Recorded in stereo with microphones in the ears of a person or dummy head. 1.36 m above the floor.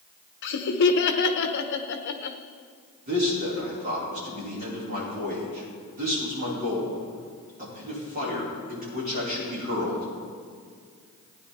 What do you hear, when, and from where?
0.4 s laughter: 60° left (ahead or behind), 1.0 m
3.1 s a man speaking: 40° right (ahead or behind), 4.5 m